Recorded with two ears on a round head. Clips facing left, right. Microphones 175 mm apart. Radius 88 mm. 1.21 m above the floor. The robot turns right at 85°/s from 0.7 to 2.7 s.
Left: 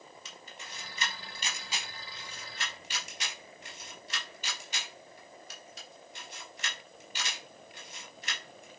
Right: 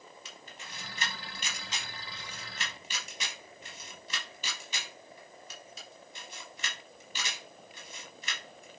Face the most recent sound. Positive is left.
turn(degrees=-75)  # may be behind; listen again after turning